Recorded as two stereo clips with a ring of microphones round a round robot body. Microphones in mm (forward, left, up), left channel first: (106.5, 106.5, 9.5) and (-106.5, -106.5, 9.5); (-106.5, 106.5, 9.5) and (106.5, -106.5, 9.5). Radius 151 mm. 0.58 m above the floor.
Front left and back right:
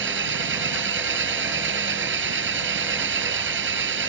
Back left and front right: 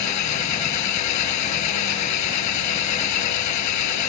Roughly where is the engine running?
Behind.